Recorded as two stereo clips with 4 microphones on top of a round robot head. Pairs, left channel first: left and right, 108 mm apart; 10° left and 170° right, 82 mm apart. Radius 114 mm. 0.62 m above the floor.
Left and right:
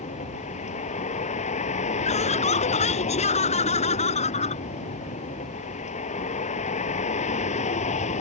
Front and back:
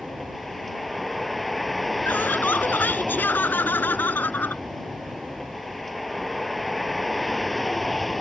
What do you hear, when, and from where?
0.0 s a vehicle: 100° left
2.0 s laughter: 75° left